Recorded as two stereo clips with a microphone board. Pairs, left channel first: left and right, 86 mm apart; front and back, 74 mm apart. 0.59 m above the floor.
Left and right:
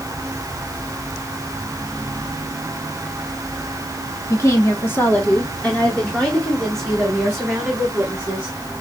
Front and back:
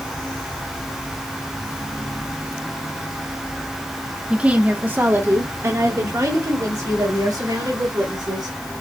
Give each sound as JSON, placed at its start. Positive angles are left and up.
{"t": 4.3, "sound": "a woman speaking", "azimuth_deg": 115, "distance_m": 1.5}